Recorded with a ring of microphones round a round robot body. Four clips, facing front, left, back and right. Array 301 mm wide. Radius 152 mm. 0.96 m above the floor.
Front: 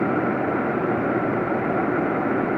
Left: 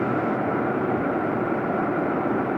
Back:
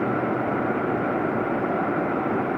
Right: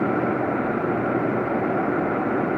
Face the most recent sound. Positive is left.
No sound to turn to.